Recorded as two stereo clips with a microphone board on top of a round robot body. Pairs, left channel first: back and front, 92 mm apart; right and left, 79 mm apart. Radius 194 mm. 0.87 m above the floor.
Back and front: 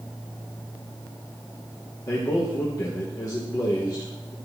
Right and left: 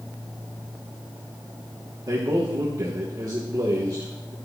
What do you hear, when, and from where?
2.1 s a man speaking: 130° left, 1.7 m